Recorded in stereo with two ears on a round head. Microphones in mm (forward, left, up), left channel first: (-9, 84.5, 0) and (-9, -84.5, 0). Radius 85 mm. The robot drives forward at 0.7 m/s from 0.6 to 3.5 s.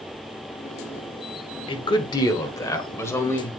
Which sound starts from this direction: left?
A man speaking, at 1.7 s.